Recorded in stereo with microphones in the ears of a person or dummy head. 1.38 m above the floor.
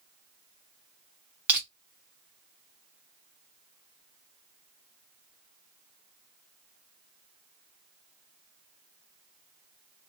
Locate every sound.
1.5 s crushing: 5° right (ahead or behind), 1.4 m